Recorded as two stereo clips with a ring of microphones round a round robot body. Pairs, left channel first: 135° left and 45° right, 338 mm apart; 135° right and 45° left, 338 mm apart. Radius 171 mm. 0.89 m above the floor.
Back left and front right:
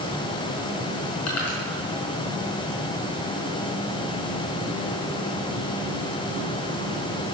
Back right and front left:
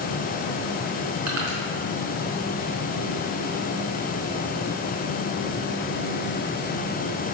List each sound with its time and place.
1.3 s crushing: 90° left, 5 m